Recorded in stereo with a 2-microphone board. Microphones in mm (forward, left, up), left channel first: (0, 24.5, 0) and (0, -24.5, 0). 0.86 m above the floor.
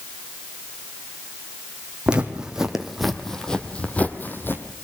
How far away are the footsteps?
About 2.5 m.